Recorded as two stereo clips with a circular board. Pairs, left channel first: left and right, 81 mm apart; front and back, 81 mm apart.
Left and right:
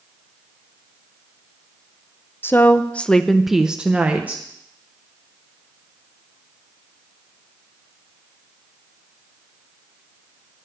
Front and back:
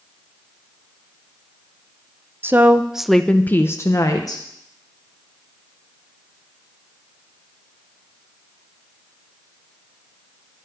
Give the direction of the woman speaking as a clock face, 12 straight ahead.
7 o'clock.